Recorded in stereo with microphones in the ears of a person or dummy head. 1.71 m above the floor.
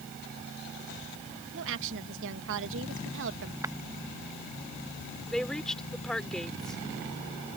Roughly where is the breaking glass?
Centre.